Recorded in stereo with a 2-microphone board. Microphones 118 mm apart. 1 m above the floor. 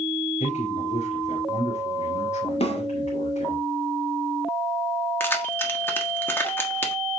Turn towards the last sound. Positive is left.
turn(degrees=20)  # may be behind; listen again after turning